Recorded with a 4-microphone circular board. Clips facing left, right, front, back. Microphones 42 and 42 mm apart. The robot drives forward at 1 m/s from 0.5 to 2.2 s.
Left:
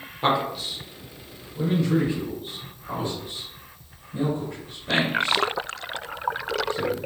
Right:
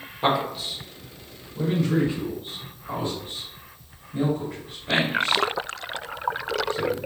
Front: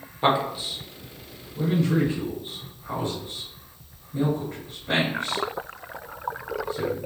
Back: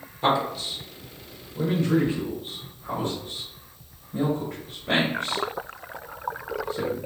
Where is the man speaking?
5° right, 0.9 m; by 7.0 s straight behind, 1.6 m.